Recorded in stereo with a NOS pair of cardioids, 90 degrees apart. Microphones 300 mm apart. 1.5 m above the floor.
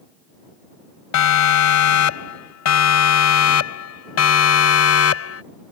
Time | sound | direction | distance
1.1 | a siren | 70° left | ?